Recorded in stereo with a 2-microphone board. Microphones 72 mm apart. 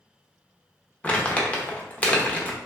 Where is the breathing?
No breathing in this recording.